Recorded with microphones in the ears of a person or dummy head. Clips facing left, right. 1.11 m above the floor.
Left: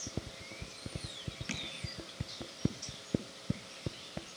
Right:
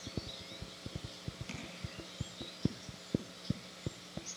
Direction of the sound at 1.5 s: 25° left (ahead or behind).